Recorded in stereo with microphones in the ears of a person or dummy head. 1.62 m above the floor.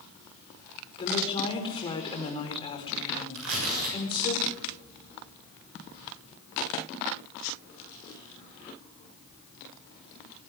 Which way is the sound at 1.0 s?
25° left (ahead or behind).